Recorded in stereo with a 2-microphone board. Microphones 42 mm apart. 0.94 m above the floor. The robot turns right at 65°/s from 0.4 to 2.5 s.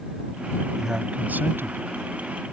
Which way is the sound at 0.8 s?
170° right.